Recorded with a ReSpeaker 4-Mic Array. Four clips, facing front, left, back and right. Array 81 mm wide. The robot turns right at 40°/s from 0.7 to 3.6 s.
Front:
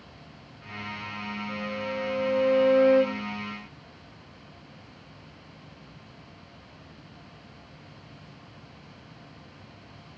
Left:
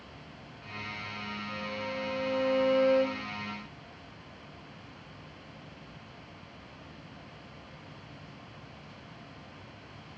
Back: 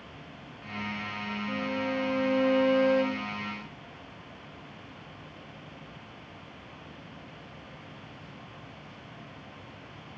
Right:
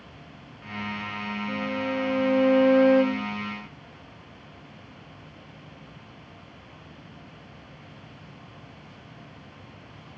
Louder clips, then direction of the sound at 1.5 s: Right 9 dB, back 3 dB; 120° right.